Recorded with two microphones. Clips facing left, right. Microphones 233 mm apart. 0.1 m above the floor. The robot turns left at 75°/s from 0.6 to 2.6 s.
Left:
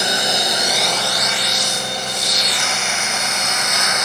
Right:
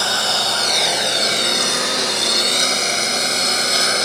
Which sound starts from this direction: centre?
A lawn mower, at 0.0 s.